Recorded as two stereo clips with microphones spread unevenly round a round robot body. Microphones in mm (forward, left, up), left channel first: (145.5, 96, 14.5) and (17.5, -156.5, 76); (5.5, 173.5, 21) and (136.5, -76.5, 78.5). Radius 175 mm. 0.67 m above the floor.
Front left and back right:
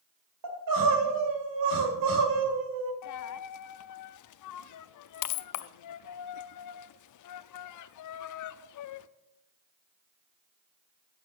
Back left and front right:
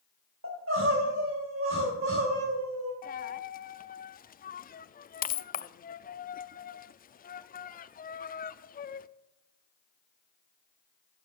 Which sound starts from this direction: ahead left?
A dropped coin, at 3.0 s.